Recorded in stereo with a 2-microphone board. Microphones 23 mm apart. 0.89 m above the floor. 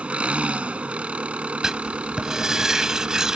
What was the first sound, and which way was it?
An engine running, 80° right.